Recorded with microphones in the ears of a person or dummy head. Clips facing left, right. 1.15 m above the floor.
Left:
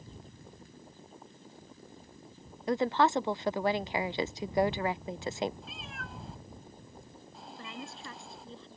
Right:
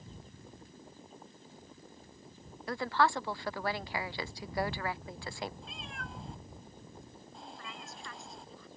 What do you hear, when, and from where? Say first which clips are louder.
2.7 s a woman speaking: left 4 dB; 20° left (ahead or behind)
5.6 s a cat meowing: even; 5° left (ahead or behind)
7.6 s a woman speaking: left 4 dB; 25° left (ahead or behind)